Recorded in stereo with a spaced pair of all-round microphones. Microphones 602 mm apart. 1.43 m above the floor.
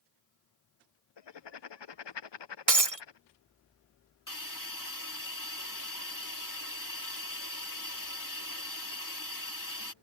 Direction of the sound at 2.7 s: 65° right (ahead or behind).